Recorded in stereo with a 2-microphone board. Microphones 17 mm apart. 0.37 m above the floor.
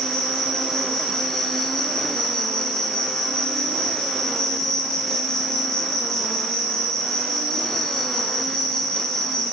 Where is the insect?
30° left (ahead or behind), 2.5 m.